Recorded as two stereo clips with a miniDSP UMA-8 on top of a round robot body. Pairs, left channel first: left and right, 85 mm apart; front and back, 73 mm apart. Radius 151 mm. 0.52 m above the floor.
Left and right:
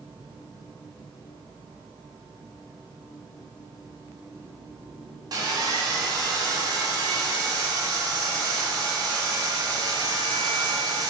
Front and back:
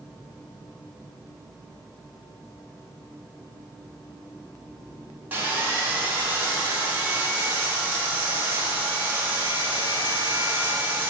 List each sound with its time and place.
5.3 s sawing: 120° right, 1.8 m